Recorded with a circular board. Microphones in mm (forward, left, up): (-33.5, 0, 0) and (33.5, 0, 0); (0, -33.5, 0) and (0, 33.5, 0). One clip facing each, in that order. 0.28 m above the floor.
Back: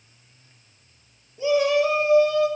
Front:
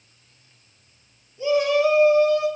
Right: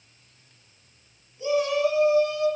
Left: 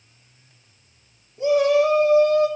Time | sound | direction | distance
1.4 | a shout | 105° left | 1.3 m